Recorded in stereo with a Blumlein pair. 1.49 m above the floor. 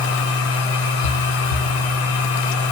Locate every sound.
0.0 s a machine running: 55° left, 3.5 m